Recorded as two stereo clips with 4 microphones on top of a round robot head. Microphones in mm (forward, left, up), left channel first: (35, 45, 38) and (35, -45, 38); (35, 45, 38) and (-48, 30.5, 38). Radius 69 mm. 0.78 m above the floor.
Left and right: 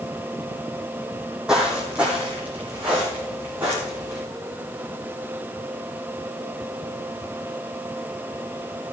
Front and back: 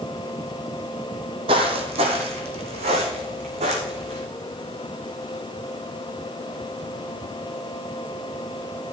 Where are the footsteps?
175° right, 1.2 m; by 4.2 s 165° right, 2.5 m.